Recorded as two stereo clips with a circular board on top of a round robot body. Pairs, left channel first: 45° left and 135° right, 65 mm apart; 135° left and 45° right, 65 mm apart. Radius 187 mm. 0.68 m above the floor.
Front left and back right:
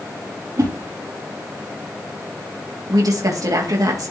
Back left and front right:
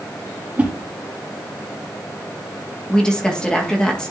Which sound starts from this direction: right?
A whoosh, at 0.6 s.